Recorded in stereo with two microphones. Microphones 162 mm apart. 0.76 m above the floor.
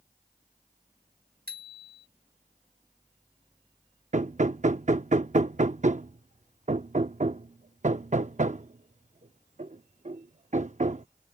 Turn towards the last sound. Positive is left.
turn(degrees=-50)  # may be behind; listen again after turning